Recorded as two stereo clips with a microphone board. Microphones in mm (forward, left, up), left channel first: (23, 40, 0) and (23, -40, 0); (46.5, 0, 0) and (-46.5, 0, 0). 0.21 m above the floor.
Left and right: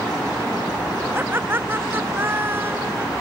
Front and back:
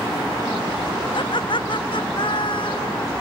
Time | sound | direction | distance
1.1 | laughter | 30° right | ?